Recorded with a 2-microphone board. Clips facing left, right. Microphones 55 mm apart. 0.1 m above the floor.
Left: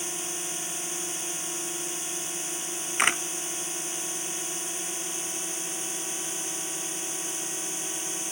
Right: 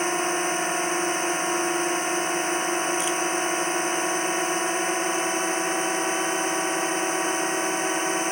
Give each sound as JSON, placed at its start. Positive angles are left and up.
{"t": 0.0, "sound": "a drone", "side_deg": -55}
{"t": 3.0, "sound": "a camera shutter", "side_deg": 70}